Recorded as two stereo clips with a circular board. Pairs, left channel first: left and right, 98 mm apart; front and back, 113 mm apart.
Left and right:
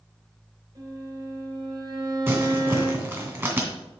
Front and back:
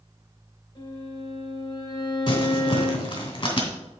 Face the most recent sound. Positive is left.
turn(degrees=-30)